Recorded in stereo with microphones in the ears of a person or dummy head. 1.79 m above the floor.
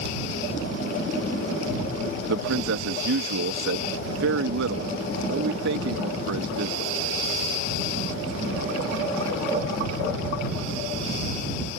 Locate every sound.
2.3 s a man speaking: 70° right (ahead or behind)